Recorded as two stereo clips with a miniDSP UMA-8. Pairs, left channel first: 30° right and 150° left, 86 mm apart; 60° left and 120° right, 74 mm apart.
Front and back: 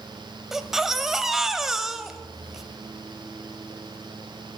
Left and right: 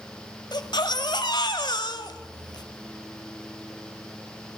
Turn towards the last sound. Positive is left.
turn(degrees=65)